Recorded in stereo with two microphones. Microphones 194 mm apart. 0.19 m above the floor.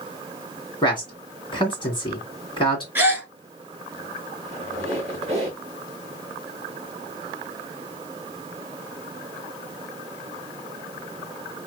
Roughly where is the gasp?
Centre.